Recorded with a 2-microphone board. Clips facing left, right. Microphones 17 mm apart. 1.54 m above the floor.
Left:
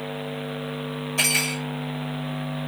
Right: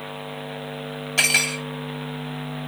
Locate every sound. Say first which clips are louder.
1.2 s cutlery clinking: right 3 dB; 55° right (ahead or behind), 1.7 m